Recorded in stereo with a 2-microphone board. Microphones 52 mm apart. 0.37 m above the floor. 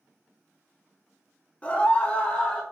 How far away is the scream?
About 0.9 m.